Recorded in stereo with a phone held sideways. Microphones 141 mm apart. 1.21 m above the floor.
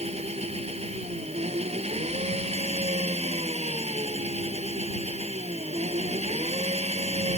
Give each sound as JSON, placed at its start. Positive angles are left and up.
{"t": 0.0, "sound": "an engine running", "side_deg": -55}